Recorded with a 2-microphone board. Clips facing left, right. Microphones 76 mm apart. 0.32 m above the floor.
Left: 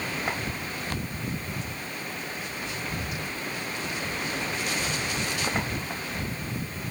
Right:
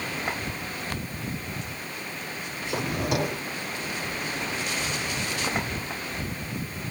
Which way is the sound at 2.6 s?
75° right (ahead or behind).